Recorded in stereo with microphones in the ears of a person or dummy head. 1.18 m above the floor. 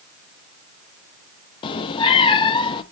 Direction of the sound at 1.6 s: 25° left (ahead or behind).